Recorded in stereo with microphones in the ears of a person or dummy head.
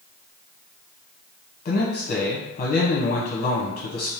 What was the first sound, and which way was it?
A man speaking, 45° left (ahead or behind).